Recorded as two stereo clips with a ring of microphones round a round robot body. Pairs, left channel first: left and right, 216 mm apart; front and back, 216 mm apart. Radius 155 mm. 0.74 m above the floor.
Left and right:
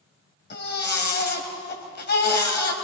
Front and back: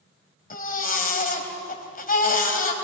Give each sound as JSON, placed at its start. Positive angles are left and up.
{"t": 0.5, "sound": "a baby crying", "azimuth_deg": 50, "distance_m": 3.0}